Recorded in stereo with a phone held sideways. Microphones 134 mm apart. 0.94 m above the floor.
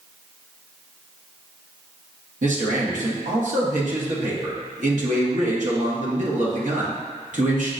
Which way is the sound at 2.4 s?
75° right (ahead or behind).